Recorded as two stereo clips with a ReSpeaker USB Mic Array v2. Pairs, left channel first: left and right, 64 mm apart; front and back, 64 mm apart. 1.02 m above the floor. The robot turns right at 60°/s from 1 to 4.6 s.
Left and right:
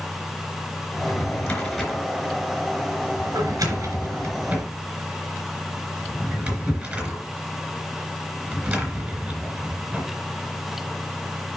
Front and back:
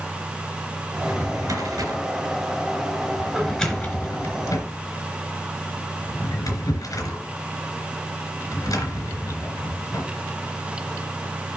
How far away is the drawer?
About 3 m.